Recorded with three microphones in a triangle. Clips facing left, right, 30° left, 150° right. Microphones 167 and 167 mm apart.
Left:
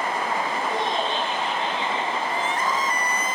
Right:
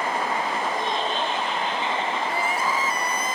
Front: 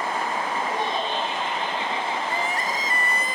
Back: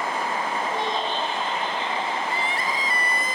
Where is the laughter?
105° left, 9 m; by 2.2 s 100° left, 9.5 m.